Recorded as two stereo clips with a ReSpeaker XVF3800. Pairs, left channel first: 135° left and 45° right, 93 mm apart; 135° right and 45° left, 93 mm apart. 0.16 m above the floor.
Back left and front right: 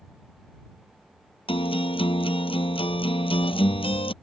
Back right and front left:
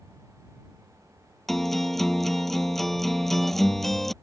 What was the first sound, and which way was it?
A guitar, 135° left.